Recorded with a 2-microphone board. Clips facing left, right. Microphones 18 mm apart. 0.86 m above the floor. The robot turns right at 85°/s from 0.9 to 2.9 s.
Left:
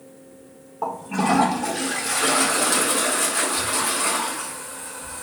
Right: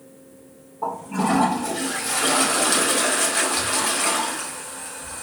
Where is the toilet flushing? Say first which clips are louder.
Even; 70° left, 0.9 m; by 5.2 s 120° right, 0.9 m.